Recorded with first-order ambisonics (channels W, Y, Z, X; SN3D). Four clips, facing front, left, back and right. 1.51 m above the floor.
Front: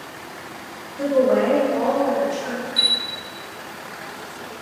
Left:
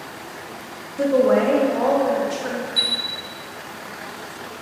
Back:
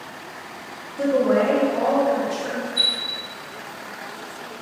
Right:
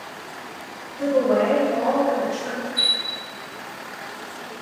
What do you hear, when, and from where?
1.0 s a woman speaking: 105° left, 0.7 m
2.8 s a chime: 55° left, 0.7 m